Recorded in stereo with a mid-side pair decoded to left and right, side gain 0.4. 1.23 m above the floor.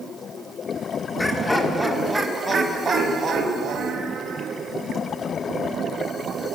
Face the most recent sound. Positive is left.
turn(degrees=-65)